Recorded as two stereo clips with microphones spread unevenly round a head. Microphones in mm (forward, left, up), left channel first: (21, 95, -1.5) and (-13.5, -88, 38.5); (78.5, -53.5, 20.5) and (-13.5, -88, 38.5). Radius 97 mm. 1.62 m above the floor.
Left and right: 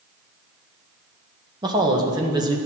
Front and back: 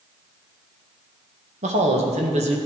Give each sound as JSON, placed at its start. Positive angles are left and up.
{"t": 1.6, "sound": "a man speaking", "azimuth_deg": -170, "distance_m": 1.9}